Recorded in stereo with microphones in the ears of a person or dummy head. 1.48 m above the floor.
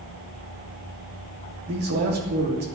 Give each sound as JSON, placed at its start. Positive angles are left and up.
{"t": 1.7, "sound": "a man speaking", "side_deg": -50, "distance_m": 2.5}